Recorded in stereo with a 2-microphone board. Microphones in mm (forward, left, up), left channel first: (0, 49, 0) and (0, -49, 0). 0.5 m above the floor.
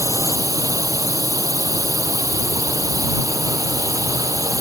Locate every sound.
0.0 s a drone: 35° right (ahead or behind)